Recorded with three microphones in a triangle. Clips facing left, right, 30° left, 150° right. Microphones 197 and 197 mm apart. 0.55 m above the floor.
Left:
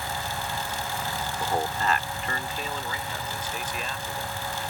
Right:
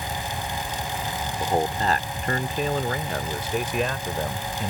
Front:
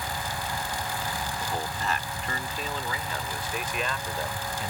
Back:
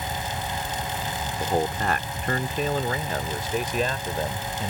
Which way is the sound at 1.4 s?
150° right.